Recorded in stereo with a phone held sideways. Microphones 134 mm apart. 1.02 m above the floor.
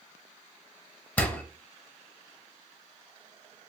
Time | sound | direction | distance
1.2 | a door slam | 10° left (ahead or behind) | 0.6 m